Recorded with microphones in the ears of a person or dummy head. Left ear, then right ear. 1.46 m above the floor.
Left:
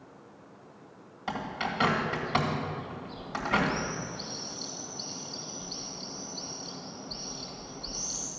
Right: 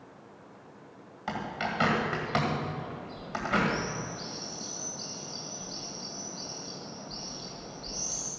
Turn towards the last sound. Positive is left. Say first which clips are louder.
# even
turn(degrees=-5)  # may be behind; listen again after turning